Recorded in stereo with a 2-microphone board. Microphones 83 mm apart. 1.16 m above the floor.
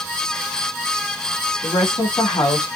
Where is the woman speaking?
55° left (ahead or behind), 2.5 m.